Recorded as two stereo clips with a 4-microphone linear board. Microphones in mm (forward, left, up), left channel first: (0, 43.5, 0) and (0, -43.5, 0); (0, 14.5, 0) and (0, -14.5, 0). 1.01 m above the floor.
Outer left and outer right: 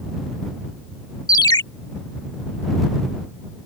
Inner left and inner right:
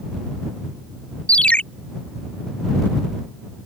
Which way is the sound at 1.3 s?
45° left (ahead or behind).